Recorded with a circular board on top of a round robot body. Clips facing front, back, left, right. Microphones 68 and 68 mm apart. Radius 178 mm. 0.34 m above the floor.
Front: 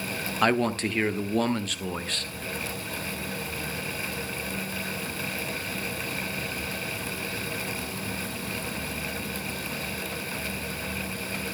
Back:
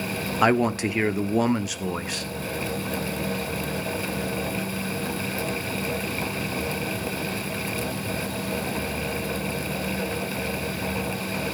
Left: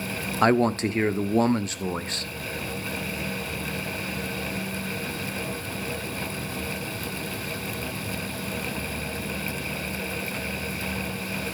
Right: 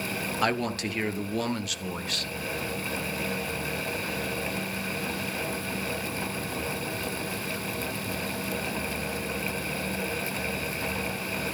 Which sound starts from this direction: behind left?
A man speaking, at 0.4 s.